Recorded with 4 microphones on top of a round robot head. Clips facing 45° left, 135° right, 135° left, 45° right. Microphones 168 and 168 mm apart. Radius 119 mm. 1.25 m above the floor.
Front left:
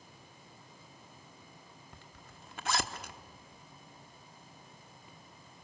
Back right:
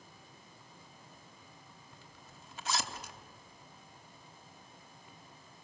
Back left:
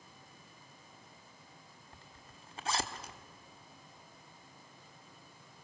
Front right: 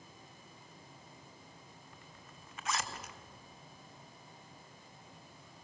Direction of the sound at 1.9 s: 75° left.